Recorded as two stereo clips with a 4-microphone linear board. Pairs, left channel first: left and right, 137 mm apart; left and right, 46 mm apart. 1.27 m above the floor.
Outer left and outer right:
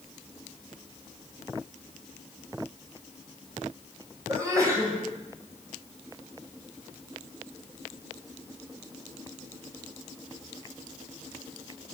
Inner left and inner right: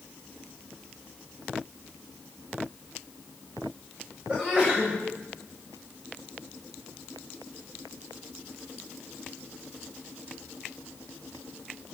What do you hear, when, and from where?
4.3 s a sneeze: 25° right (ahead or behind), 8 m